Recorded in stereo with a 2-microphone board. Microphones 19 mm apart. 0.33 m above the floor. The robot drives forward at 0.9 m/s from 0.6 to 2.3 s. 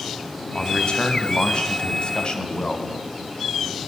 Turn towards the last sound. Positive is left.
turn(degrees=55)  # may be behind; listen again after turning